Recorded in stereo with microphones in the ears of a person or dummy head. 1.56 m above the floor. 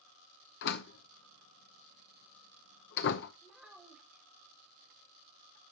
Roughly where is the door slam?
Left.